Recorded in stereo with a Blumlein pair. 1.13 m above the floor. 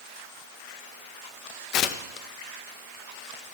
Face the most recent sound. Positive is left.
turn(degrees=40)